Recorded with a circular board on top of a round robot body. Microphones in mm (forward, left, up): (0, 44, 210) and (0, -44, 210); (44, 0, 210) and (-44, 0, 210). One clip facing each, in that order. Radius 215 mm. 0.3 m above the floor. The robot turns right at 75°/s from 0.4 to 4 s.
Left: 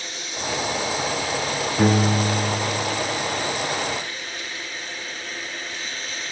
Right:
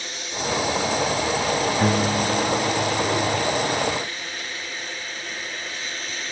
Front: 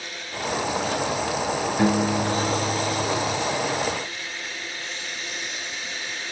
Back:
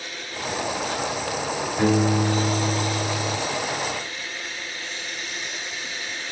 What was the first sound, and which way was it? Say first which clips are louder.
A piano: left 1 dB, back 2 dB; 100° left.